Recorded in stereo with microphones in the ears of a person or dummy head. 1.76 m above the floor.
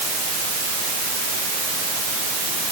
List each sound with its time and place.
Only background noise.